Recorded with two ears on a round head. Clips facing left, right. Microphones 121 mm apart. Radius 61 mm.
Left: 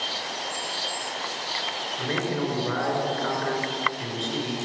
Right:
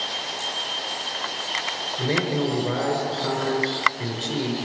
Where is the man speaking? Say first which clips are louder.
Right 4 dB; 20° right (ahead or behind), 5.5 m.